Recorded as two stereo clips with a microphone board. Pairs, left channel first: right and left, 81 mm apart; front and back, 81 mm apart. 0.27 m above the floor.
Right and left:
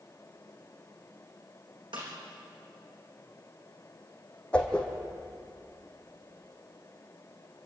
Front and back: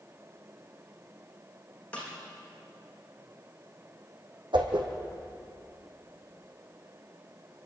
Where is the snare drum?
75° left, 6 m.